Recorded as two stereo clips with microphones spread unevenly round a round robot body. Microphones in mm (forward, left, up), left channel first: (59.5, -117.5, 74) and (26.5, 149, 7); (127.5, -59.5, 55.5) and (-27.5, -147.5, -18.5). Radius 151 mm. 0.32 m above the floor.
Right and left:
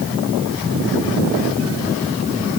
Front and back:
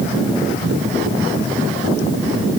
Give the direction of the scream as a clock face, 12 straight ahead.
I don't hear a scream.